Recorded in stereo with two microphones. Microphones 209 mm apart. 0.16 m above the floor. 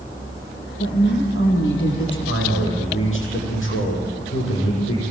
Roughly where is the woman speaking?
Left.